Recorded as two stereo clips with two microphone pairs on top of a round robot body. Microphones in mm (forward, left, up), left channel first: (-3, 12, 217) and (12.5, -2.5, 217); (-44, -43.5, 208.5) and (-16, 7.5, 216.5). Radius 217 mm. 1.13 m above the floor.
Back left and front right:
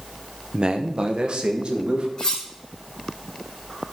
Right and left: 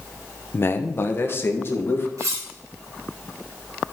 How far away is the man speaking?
About 1.1 m.